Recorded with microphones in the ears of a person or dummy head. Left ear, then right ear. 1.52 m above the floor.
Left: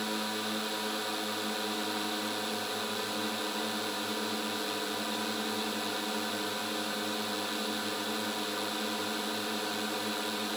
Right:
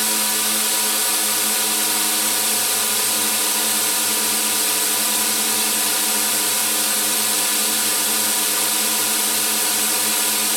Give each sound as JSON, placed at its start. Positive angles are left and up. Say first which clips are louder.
{"t": 0.0, "sound": "a drone", "louder": "right 12 dB", "side_deg": -55}